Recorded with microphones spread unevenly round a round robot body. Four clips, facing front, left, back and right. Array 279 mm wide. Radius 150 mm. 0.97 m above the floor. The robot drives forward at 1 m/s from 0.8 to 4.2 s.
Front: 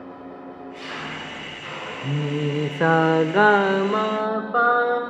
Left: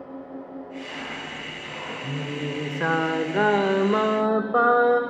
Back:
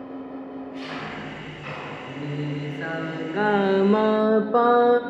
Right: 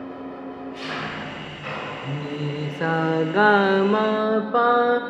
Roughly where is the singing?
Ahead.